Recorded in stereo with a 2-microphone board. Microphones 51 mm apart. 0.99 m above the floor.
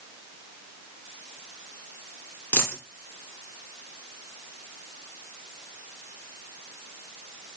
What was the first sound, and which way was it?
A dropped coin, 35° left (ahead or behind).